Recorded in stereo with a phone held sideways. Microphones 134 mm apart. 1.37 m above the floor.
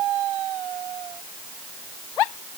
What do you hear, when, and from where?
Only background noise.